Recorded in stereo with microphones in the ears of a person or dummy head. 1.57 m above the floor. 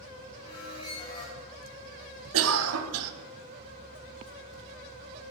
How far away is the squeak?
About 1.1 m.